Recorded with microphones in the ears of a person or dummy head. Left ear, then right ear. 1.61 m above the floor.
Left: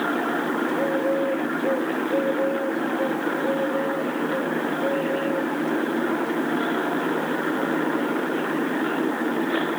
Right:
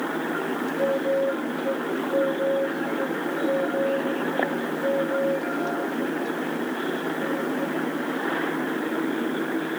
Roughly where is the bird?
Right.